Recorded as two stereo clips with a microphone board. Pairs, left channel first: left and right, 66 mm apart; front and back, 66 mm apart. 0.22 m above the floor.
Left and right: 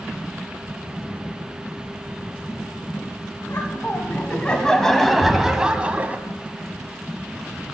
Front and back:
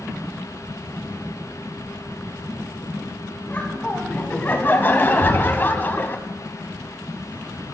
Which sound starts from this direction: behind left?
Knocking, at 5.2 s.